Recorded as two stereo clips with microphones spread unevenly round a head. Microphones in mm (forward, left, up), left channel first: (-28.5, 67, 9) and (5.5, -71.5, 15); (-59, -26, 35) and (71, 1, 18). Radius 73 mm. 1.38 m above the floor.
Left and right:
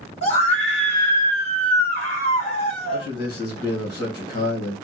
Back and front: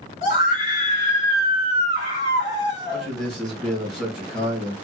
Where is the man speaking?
100° left, 1.9 m.